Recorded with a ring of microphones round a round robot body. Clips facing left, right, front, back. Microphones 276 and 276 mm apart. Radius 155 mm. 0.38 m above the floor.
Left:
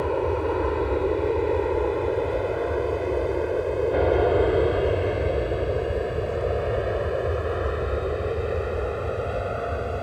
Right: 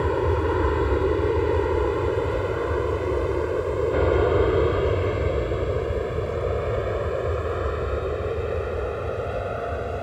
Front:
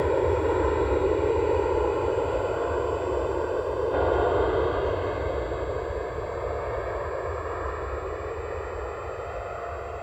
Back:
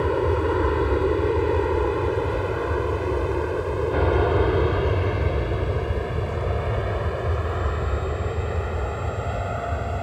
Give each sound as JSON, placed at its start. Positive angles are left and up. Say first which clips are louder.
{"t": 0.0, "sound": "an aircraft", "louder": "right 1 dB, back 1 dB", "azimuth_deg": -130}